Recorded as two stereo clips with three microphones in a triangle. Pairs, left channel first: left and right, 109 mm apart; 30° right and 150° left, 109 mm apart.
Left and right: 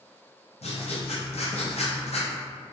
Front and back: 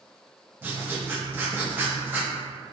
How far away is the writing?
About 0.5 m.